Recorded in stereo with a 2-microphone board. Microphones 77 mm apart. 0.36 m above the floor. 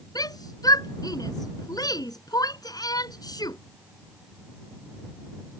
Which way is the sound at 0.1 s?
60° left (ahead or behind).